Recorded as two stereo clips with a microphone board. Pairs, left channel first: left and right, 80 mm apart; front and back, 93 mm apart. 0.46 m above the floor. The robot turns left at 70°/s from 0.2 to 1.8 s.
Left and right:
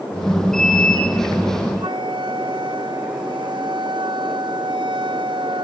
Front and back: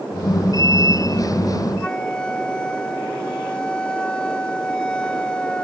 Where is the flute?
80° right.